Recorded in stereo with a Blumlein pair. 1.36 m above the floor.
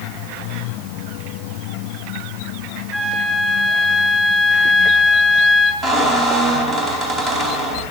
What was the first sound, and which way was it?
A flute, straight ahead.